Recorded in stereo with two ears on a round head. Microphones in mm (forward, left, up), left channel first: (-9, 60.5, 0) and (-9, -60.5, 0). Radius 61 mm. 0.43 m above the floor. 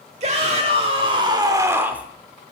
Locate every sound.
0.2 s a shout: 45° right (ahead or behind), 1.2 m; by 2.1 s 10° right (ahead or behind), 0.8 m